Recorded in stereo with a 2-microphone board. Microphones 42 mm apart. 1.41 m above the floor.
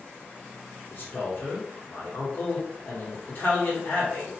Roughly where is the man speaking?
Left.